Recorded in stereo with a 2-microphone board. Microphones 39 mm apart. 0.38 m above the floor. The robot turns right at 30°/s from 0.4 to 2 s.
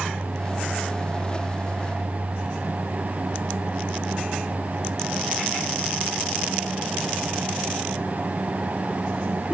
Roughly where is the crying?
I don't hear crying.